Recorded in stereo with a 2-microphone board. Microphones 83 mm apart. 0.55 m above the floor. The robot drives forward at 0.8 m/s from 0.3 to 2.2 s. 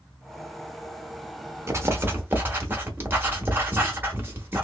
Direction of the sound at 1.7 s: 35° right (ahead or behind).